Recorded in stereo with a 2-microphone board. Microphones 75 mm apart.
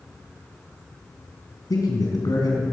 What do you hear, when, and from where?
1.7 s a man speaking: 60° left (ahead or behind), 3 m